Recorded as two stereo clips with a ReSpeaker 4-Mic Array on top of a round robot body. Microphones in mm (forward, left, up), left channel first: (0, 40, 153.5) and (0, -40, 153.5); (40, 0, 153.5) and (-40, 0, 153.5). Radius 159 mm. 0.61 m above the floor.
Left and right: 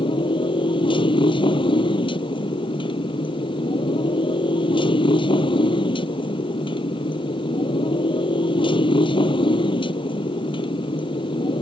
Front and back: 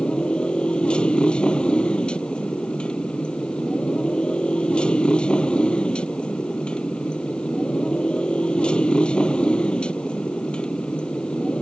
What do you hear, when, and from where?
0.0 s a motorcycle: 75° left